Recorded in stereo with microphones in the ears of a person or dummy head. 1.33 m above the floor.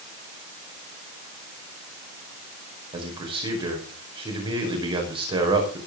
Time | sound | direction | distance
2.9 | a man speaking | 25° right (ahead or behind) | 5.5 m